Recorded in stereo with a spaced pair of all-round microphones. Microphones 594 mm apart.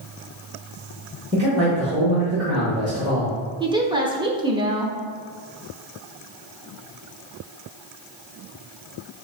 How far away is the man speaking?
About 1.5 m.